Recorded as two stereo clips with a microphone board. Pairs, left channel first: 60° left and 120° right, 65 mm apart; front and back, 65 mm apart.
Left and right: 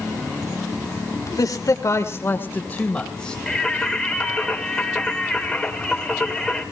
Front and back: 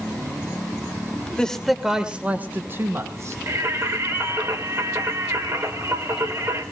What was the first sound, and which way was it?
A man speaking, 75° left.